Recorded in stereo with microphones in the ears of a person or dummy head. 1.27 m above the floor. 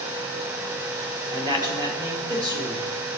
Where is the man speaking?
25° right (ahead or behind), 1.1 m.